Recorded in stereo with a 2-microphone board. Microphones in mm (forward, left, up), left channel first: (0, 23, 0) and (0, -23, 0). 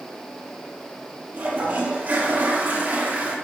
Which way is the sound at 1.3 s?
45° right (ahead or behind).